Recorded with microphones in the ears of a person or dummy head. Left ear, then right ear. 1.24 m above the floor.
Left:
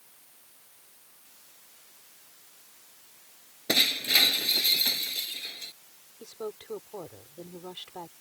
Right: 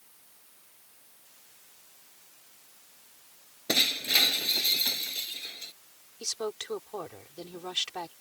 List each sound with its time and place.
3.7 s breaking glass: centre (ahead or behind)
6.2 s a woman speaking: 65° right (ahead or behind)